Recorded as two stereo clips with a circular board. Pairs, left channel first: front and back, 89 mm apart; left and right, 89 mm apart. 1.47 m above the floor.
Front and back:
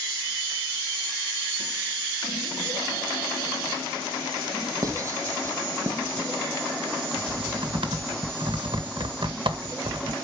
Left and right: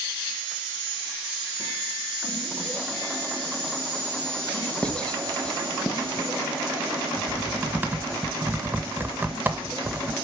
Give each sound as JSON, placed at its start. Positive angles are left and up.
{"t": 4.8, "sound": "writing", "azimuth_deg": 165, "distance_m": 1.5}
{"t": 7.2, "sound": "typing on a keyboard", "azimuth_deg": -160, "distance_m": 1.4}